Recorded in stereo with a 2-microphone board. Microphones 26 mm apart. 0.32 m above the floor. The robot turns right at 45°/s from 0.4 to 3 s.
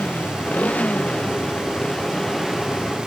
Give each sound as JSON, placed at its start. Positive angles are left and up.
{"t": 0.0, "sound": "a motorcycle", "azimuth_deg": 90}